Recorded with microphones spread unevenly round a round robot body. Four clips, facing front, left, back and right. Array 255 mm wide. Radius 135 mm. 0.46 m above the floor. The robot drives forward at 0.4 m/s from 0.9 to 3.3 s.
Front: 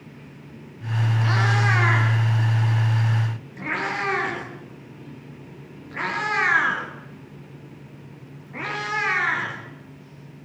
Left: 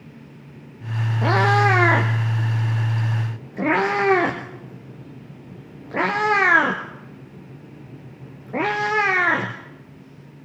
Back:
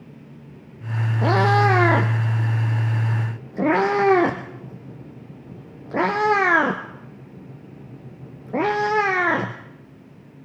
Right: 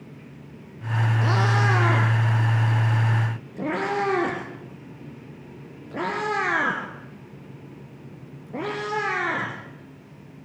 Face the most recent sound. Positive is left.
turn(degrees=160)